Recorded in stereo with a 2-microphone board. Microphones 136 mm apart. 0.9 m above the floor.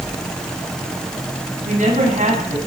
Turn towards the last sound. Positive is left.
turn(degrees=-75)  # may be behind; listen again after turning